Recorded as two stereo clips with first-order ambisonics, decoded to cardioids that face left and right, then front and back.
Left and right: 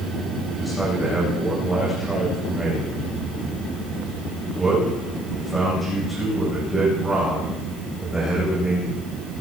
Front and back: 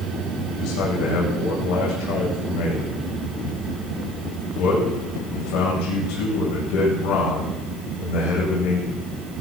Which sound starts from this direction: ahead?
A man speaking, at 0.5 s.